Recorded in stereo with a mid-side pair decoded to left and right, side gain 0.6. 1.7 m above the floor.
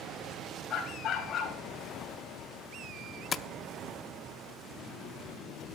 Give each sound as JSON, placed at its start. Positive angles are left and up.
{"t": 0.7, "sound": "a dog barking", "azimuth_deg": 50, "distance_m": 6.5}
{"t": 3.3, "sound": "tapping", "azimuth_deg": 35, "distance_m": 0.6}